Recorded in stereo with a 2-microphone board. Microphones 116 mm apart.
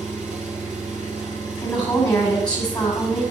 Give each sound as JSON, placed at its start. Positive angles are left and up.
{"t": 0.0, "sound": "an engine running", "side_deg": -5, "distance_m": 5.5}
{"t": 1.6, "sound": "a woman speaking", "side_deg": 35, "distance_m": 2.5}